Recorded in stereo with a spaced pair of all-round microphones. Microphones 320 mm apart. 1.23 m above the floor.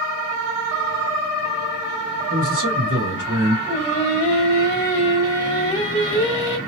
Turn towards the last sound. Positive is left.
turn(degrees=20)  # may be behind; listen again after turning